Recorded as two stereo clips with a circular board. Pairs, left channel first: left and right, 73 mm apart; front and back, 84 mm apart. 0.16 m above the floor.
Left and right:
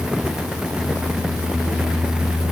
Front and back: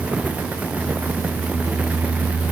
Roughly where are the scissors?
I don't hear scissors.